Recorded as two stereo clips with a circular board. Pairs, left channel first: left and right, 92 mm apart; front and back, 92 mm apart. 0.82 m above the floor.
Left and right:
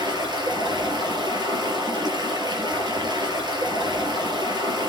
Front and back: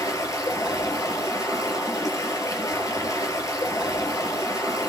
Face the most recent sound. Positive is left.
turn(degrees=-50)